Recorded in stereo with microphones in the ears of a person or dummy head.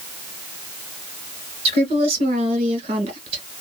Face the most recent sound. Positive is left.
turn(degrees=-30)  # may be behind; listen again after turning